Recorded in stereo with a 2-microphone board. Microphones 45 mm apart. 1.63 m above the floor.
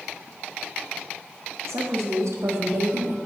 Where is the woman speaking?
85° right, 1.2 m; by 3.2 s 50° right (ahead or behind), 0.8 m.